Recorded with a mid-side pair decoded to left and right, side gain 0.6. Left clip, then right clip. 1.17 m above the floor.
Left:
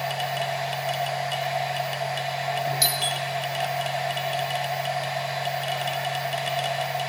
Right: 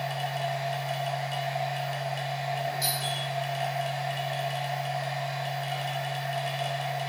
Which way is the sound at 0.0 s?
45° left.